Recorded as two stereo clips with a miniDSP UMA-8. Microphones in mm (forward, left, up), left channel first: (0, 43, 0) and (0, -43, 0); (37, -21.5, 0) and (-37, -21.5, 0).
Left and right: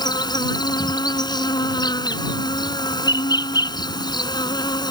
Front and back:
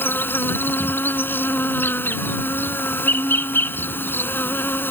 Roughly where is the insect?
Ahead left.